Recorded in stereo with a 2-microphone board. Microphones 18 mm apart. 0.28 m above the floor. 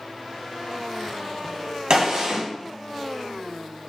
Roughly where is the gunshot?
Right.